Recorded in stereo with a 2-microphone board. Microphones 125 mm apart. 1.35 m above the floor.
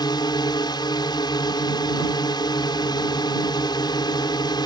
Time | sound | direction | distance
0.0 | a drone | 40° left (ahead or behind) | ?